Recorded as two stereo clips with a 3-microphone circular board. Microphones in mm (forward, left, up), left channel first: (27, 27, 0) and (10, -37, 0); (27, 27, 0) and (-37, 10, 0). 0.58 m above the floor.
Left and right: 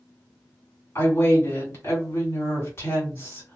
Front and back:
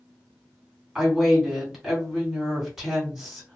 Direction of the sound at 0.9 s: 110° left.